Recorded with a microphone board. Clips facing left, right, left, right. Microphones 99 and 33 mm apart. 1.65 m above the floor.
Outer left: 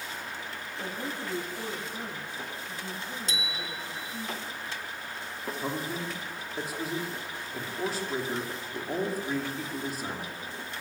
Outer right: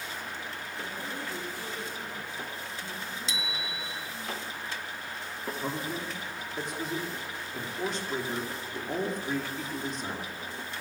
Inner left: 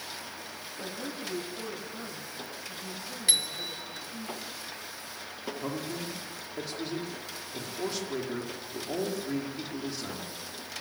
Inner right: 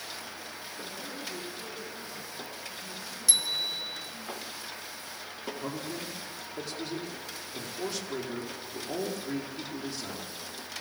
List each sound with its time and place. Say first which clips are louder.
0.8 s a woman speaking: outer left 3 dB, inner left 3 dB; 60° left (ahead or behind), 8 m
3.3 s a bicycle bell: even, inner right 1 dB; 50° left (ahead or behind), 2 m
5.6 s a man speaking: outer left 1 dB, inner left 2 dB; 5° left (ahead or behind), 4 m